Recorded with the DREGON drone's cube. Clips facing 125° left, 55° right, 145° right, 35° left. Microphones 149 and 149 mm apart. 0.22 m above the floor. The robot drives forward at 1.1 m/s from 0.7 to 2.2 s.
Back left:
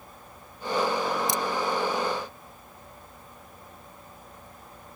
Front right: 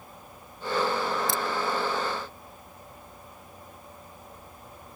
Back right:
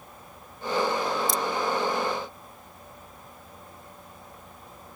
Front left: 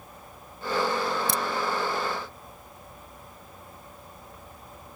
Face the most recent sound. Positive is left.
turn(degrees=60)